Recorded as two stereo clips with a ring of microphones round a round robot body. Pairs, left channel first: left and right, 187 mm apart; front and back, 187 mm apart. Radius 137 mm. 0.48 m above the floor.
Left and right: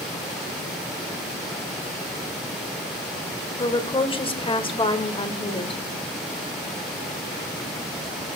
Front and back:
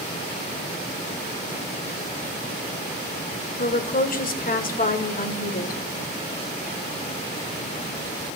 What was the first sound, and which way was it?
A woman speaking, 35° left.